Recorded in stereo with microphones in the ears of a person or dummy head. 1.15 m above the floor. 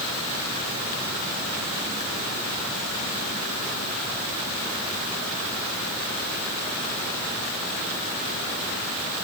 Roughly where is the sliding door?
No sliding door in this recording.